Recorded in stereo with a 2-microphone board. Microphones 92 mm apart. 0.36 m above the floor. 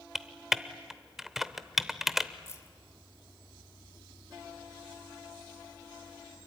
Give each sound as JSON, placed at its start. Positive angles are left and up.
{"t": 0.1, "sound": "typing on a keyboard", "side_deg": -5, "distance_m": 0.8}
{"t": 2.5, "sound": "keys jangling", "side_deg": 30, "distance_m": 1.5}